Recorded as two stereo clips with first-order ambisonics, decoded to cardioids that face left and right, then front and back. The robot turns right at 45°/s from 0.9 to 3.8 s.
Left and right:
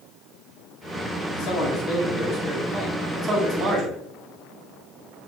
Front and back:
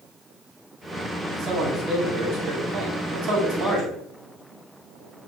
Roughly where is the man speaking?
Behind left.